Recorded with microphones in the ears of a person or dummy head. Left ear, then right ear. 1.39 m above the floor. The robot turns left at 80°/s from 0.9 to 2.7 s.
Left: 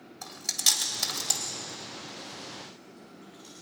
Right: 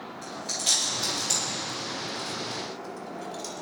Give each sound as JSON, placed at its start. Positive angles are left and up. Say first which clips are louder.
{"t": 0.2, "sound": "chewing", "louder": "left 2 dB", "side_deg": 40, "distance_m": 2.5}